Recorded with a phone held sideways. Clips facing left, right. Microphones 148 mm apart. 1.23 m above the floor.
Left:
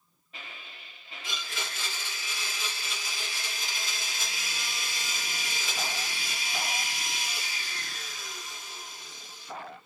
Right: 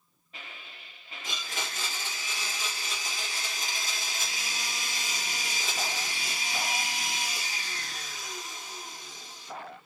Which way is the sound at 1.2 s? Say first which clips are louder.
Right 1 dB; 45° right (ahead or behind).